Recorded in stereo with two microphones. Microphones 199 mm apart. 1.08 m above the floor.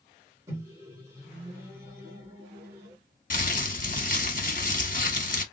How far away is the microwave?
About 1.7 m.